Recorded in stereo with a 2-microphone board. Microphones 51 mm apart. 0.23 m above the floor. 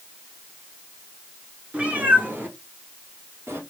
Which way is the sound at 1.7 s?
25° right (ahead or behind).